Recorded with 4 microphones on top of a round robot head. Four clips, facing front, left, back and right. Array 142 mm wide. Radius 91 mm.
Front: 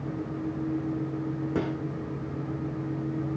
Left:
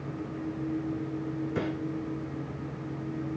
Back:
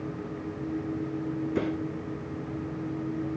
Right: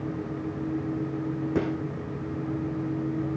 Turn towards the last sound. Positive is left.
turn(degrees=-50)